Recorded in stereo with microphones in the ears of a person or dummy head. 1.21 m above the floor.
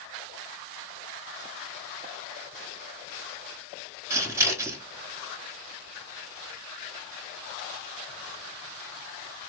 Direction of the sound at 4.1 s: 20° right (ahead or behind).